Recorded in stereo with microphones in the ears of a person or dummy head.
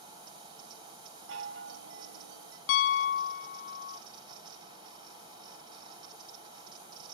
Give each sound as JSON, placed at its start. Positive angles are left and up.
{"t": 0.0, "sound": "a fan", "side_deg": -30, "distance_m": 4.0}
{"t": 1.3, "sound": "a chime", "side_deg": -75, "distance_m": 2.5}
{"t": 2.7, "sound": "a piano", "side_deg": 65, "distance_m": 0.7}